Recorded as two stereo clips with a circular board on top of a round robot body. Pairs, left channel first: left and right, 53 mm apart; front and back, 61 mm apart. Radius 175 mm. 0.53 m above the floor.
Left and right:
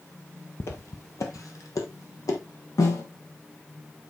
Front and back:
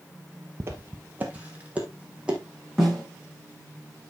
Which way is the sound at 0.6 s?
130° left.